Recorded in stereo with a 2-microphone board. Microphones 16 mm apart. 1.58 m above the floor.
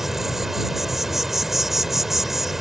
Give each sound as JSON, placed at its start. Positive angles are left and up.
{"t": 0.0, "sound": "an insect", "side_deg": -20}